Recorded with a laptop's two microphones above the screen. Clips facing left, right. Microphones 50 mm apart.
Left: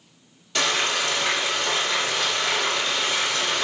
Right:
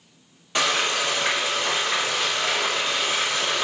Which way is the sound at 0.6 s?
25° right (ahead or behind).